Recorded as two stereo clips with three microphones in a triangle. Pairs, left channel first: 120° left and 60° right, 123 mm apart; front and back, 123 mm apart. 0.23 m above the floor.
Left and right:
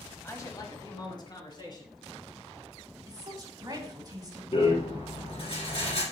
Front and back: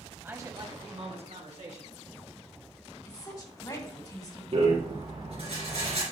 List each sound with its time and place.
0.2 s a man speaking: 135° left, 1.1 m; by 2.0 s 170° left, 3.5 m
3.1 s a woman speaking: 30° right, 1.6 m
4.5 s a rattle: 150° left, 3.5 m